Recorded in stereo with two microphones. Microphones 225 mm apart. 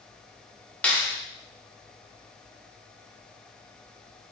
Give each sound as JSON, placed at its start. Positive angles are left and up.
{"t": 0.8, "sound": "a clap", "side_deg": 5, "distance_m": 0.7}